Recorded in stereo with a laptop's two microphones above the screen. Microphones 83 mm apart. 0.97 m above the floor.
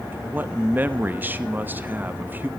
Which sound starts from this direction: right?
A man speaking, at 0.1 s.